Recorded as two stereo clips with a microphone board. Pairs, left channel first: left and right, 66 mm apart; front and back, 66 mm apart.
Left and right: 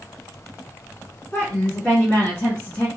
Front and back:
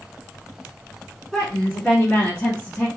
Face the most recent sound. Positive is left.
turn(degrees=45)